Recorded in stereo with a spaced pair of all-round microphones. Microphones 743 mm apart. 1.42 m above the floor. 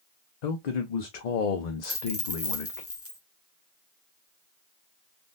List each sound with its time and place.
0.4 s a man speaking: 65° left (ahead or behind), 0.7 m
1.8 s a dropped coin: 20° left (ahead or behind), 0.7 m